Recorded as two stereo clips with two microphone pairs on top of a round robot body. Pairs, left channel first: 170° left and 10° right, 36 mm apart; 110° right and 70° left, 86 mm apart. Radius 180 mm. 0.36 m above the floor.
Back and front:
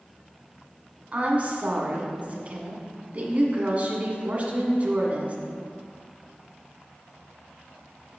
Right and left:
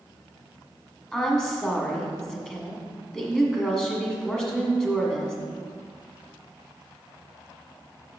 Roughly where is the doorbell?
I don't hear a doorbell.